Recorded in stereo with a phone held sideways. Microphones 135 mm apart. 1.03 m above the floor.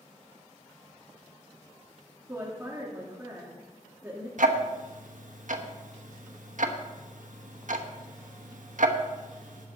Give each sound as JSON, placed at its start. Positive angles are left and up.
{"t": 2.3, "sound": "a woman speaking", "side_deg": -15, "distance_m": 2.0}
{"t": 4.4, "sound": "ticking", "side_deg": -75, "distance_m": 1.1}